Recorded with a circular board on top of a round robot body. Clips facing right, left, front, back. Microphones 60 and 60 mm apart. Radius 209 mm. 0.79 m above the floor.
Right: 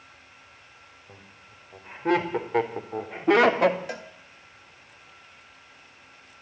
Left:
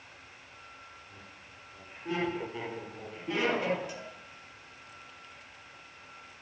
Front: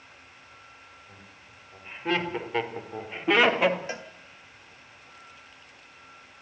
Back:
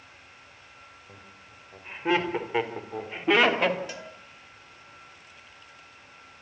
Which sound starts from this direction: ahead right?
A cowbell, at 3.9 s.